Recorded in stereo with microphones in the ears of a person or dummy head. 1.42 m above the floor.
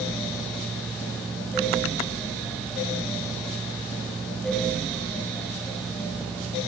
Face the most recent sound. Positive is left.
No sound to turn to.